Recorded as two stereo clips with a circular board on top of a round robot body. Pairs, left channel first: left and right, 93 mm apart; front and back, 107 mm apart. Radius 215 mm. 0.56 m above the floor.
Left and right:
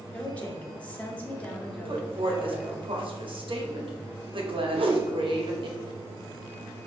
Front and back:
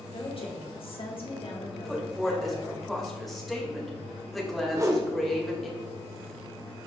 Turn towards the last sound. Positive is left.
turn(degrees=-115)